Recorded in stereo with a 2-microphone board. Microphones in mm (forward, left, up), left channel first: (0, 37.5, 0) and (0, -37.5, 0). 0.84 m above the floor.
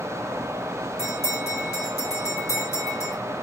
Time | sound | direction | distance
1.0 | a bell | 50° left (ahead or behind) | 2.5 m